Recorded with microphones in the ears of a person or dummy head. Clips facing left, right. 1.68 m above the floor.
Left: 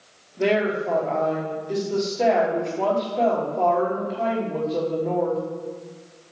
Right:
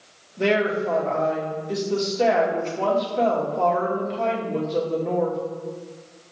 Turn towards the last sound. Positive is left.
turn(degrees=0)  # may be behind; listen again after turning